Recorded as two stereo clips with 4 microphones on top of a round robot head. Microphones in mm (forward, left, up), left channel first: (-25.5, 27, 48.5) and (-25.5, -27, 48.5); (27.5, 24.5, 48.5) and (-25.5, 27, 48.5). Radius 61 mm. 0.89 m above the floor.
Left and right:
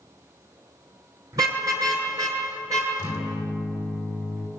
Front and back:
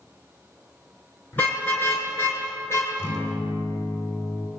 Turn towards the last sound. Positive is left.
turn(degrees=-110)